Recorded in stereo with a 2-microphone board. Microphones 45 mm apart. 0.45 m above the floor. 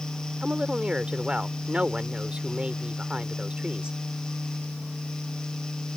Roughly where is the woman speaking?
Right.